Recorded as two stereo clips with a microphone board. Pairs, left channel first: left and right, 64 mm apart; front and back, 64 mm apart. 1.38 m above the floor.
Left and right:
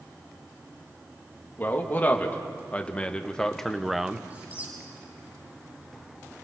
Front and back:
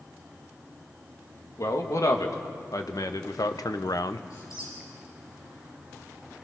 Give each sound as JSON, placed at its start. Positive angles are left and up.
{"t": 1.6, "sound": "a man speaking", "azimuth_deg": 30, "distance_m": 2.5}
{"t": 4.3, "sound": "a squeak", "azimuth_deg": -25, "distance_m": 7.5}